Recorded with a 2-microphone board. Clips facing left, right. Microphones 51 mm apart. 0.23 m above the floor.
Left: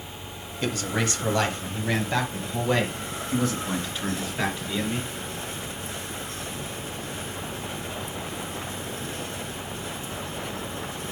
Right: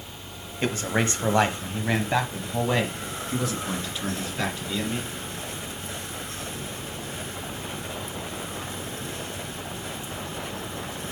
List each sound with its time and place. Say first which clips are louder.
0.6 s a man speaking: right 2 dB; 30° right (ahead or behind), 1.3 m; by 5.1 s centre (ahead or behind), 2.5 m